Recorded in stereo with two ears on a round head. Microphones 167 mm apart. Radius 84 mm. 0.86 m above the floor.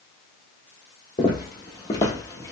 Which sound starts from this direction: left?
Footsteps, at 1.2 s.